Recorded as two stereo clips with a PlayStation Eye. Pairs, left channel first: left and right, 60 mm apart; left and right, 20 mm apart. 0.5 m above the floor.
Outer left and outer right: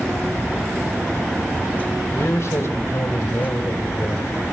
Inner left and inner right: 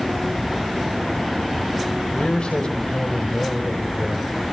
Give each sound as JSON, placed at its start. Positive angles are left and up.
{"t": 2.1, "sound": "a man speaking", "side_deg": 60, "distance_m": 2.5}